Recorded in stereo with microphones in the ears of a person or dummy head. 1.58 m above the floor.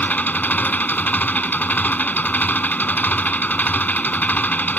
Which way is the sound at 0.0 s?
10° left (ahead or behind).